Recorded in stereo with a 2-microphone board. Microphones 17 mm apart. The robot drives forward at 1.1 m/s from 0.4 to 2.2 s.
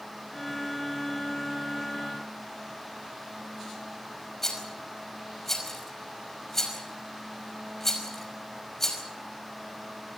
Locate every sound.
4.4 s a rattle: 15° left (ahead or behind), 5 m